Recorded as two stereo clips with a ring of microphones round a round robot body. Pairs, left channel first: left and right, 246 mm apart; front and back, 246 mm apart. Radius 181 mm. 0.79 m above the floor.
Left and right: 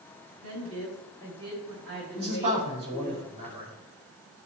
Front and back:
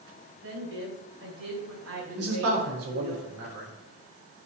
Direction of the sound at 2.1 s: 160° right.